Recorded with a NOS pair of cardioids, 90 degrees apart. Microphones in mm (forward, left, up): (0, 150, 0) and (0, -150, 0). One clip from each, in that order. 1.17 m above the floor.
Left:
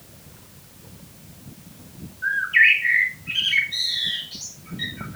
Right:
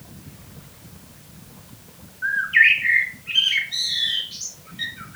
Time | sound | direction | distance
2.2 | a bird | 20° right | 2.5 m